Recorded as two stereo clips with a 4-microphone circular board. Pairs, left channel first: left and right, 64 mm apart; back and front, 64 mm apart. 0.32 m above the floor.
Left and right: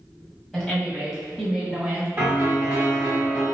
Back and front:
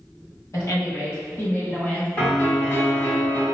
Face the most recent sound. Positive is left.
turn(degrees=-135)